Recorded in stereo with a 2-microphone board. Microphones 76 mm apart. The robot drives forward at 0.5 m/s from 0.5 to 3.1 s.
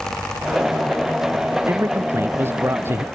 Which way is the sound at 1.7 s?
30° right (ahead or behind).